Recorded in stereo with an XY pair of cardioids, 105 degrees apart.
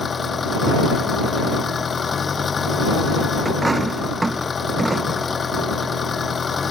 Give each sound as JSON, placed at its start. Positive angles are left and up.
{"t": 0.0, "sound": "an engine running", "azimuth_deg": 35}
{"t": 3.5, "sound": "a dropped coin", "azimuth_deg": -15}